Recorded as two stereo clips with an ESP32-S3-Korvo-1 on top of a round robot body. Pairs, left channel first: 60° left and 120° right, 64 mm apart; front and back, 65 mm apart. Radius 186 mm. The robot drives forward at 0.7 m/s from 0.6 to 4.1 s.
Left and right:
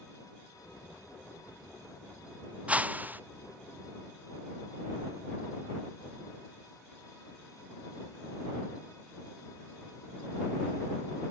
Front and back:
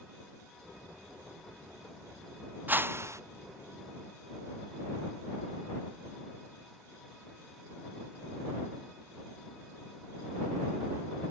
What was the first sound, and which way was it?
A whoosh, 165° right.